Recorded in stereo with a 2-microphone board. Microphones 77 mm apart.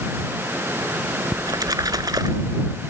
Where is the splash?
60° right (ahead or behind).